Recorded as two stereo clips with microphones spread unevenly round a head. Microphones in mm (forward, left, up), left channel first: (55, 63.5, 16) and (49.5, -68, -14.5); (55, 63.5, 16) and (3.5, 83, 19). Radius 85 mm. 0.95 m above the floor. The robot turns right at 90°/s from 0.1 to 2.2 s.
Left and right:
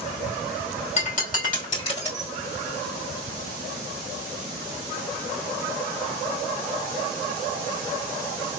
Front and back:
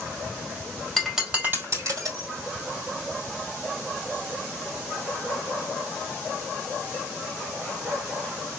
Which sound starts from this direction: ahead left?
Breaking glass, at 1.0 s.